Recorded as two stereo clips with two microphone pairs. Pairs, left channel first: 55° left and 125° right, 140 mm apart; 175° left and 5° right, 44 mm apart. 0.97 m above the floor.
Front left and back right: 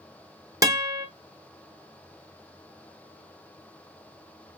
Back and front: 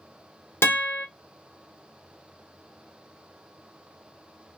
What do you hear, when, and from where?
0.6 s a guitar: 170° left, 1.2 m